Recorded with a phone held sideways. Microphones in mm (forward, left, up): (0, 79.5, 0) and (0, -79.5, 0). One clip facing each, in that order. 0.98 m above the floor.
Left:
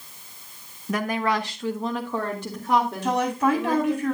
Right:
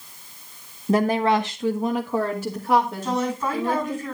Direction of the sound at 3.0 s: 75° left (ahead or behind).